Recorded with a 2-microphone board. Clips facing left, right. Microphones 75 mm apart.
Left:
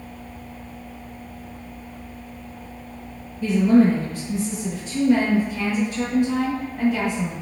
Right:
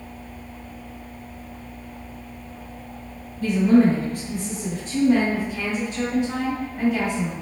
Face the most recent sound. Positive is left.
turn(degrees=5)  # may be behind; listen again after turning